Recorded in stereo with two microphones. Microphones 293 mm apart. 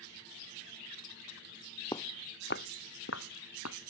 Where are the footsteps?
15° left (ahead or behind); by 3.8 s 60° left (ahead or behind).